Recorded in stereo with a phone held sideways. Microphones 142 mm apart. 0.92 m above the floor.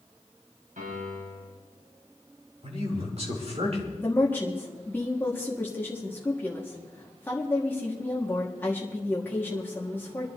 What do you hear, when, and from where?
0.8 s a piano: 80° right, 6 m
2.6 s a man speaking: 55° right (ahead or behind), 3 m
4.0 s a woman speaking: 15° left (ahead or behind), 1.6 m